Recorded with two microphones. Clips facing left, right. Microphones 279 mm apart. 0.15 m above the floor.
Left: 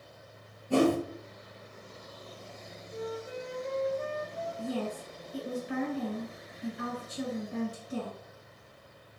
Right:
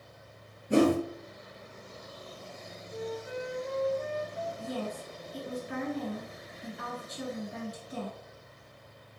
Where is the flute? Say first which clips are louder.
Right 1 dB; 5° right (ahead or behind), 1.4 m.